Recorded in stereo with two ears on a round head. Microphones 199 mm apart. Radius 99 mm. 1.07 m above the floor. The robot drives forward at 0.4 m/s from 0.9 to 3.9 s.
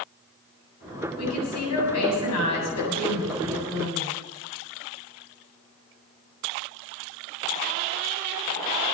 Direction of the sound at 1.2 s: 80° left.